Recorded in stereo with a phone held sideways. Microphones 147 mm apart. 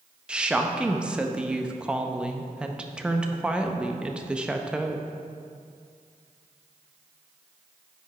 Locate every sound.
0.3 s a woman speaking: 5° right (ahead or behind), 0.6 m